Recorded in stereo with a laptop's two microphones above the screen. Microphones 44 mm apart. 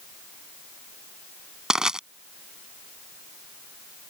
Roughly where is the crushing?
Centre.